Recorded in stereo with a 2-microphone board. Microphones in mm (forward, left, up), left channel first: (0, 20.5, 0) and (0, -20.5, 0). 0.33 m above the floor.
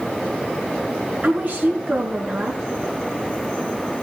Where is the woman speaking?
40° right (ahead or behind), 4 m.